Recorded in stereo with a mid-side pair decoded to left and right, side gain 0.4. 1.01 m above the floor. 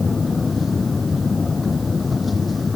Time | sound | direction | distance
0.0 | a machine running | 35° left | ?